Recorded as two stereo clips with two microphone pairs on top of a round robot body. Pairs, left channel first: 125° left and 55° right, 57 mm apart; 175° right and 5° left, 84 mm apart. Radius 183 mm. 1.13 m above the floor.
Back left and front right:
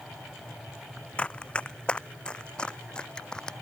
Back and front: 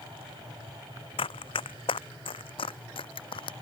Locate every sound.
1.2 s running footsteps: 165° right; by 3.5 s 160° right